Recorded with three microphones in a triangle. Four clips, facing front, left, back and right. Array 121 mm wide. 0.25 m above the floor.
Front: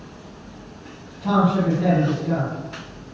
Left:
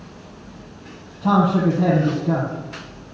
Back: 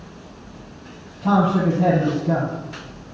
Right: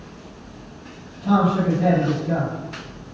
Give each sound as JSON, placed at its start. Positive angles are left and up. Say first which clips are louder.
{"t": 1.2, "sound": "a man speaking", "louder": "left 2 dB, back 1 dB", "azimuth_deg": 100, "distance_m": 7.5}